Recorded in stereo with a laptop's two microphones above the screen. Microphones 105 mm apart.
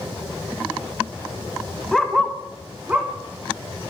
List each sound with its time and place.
1.9 s a dog barking: centre (ahead or behind), 1.6 m; by 3.9 s 25° right (ahead or behind), 3 m